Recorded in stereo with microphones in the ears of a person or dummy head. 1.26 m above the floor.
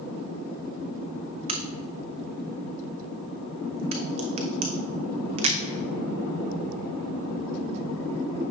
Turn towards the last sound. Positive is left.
turn(degrees=-30)  # may be behind; listen again after turning